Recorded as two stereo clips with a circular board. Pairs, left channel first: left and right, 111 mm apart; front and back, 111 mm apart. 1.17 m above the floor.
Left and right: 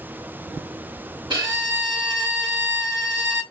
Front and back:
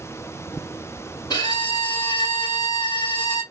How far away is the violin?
About 1.6 m.